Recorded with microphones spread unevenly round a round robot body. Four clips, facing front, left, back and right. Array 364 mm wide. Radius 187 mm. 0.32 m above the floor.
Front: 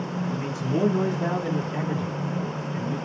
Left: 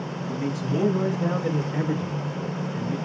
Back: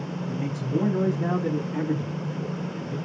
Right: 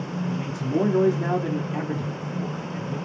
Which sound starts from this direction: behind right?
A man speaking, at 0.3 s.